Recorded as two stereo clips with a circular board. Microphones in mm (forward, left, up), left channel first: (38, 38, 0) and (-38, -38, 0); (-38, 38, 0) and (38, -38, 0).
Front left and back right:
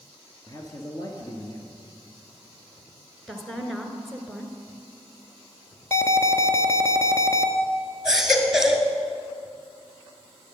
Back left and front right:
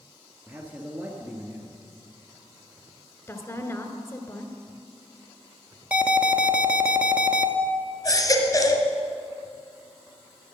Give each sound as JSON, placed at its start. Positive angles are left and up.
{"t": 0.5, "sound": "a man speaking", "azimuth_deg": 20, "distance_m": 1.4}
{"t": 3.3, "sound": "a woman speaking", "azimuth_deg": 130, "distance_m": 1.1}
{"t": 5.9, "sound": "an alarm", "azimuth_deg": 20, "distance_m": 0.8}
{"t": 8.1, "sound": "a baby crying", "azimuth_deg": 145, "distance_m": 1.3}